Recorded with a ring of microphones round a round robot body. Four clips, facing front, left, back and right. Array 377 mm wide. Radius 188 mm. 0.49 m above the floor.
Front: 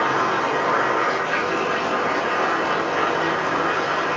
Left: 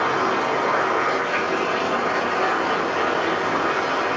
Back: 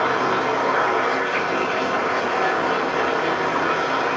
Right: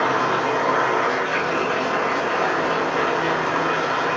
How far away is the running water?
About 2.0 m.